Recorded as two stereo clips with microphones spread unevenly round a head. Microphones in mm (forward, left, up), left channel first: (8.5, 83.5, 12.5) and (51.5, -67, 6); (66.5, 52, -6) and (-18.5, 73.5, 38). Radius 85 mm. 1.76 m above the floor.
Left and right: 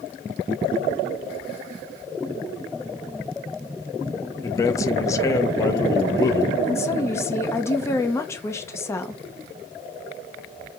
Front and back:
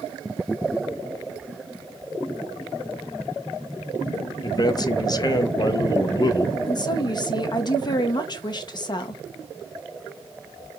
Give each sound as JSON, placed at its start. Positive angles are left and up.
{"t": 4.4, "sound": "a man speaking", "azimuth_deg": 35, "distance_m": 0.5}
{"t": 6.7, "sound": "a woman speaking", "azimuth_deg": 35, "distance_m": 0.6}